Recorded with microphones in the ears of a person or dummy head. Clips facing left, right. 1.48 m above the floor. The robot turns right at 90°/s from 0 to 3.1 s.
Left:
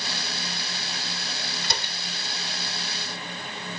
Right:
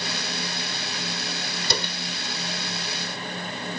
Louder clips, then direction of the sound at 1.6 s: Right 7 dB; 85° right.